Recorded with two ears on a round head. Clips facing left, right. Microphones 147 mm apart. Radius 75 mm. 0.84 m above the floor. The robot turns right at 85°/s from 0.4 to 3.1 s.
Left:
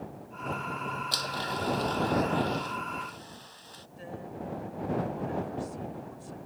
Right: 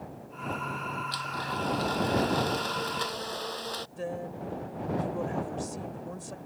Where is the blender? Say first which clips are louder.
Even; 120° left; by 3.9 s 70° right.